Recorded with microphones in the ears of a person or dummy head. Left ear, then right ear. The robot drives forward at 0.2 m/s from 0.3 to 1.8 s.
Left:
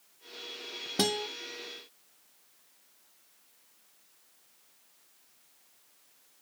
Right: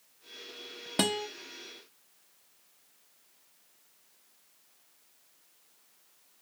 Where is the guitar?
25° right (ahead or behind), 0.6 m.